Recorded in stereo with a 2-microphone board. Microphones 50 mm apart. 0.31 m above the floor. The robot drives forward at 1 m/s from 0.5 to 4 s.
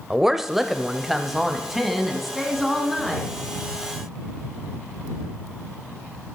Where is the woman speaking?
5° right (ahead or behind), 0.9 m; by 3.3 s centre (ahead or behind), 3.5 m.